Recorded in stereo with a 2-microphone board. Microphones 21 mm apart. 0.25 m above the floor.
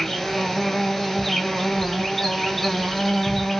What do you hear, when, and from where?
0.0 s an insect: 10° left (ahead or behind), 0.9 m
1.6 s a child speaking: 15° right (ahead or behind), 0.8 m